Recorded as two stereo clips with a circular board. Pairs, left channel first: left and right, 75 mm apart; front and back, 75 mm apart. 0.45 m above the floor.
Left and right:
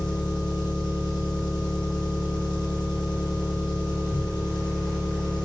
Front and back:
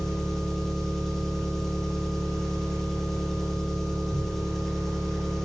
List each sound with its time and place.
0.0 s an engine running: 85° left, 3.5 m